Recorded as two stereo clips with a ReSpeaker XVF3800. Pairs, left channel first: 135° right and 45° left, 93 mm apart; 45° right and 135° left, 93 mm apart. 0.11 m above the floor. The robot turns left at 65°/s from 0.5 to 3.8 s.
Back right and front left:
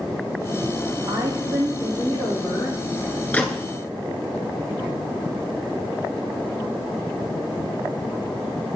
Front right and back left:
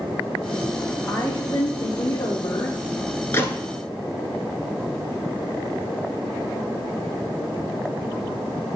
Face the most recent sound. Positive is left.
turn(degrees=-105)